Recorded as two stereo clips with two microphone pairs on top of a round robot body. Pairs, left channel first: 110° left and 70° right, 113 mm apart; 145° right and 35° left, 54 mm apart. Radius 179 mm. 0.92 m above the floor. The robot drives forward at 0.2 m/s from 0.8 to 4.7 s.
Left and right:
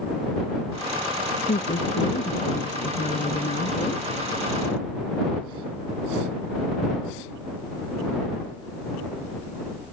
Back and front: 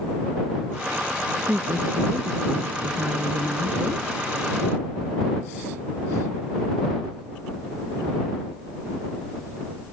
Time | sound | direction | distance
1.4 | a woman speaking | 100° left | ?